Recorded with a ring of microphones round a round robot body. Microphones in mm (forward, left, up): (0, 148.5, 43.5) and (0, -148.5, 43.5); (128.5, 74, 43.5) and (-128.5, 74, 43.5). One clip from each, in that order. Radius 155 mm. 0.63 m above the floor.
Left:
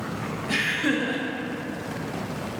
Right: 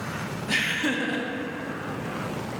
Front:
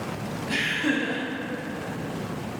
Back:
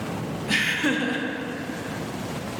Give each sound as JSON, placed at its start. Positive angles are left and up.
{"t": 0.5, "sound": "laughter", "azimuth_deg": -155, "distance_m": 0.8}